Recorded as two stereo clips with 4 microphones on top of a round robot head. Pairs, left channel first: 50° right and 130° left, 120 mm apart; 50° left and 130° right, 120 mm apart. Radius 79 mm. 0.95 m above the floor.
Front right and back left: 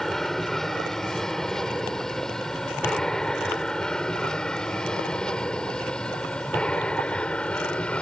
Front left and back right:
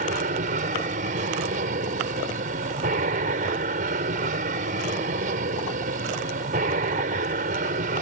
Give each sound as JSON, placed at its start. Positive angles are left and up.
{"t": 0.0, "sound": "an aircraft", "azimuth_deg": -140}